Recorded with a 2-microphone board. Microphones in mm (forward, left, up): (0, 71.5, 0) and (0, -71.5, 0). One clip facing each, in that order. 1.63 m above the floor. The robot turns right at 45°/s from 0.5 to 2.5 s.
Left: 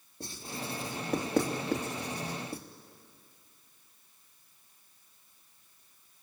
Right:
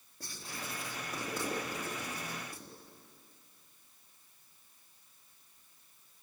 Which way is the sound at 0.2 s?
25° left (ahead or behind).